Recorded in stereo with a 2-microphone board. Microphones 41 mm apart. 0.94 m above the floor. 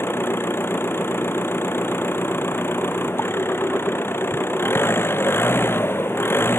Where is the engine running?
70° left (ahead or behind).